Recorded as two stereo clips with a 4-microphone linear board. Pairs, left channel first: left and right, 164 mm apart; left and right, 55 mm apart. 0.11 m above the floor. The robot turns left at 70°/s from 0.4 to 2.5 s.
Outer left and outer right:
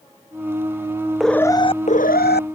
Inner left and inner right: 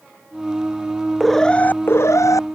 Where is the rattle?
No rattle in this recording.